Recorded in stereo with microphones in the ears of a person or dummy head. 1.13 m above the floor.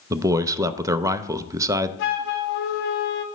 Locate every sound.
0.1 s a man speaking: 15° right (ahead or behind), 0.5 m
2.0 s a flute: 60° left (ahead or behind), 0.8 m